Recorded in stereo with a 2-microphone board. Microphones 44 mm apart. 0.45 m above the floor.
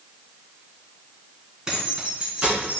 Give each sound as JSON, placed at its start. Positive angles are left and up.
{"t": 1.7, "sound": "keys jangling", "side_deg": -15, "distance_m": 2.5}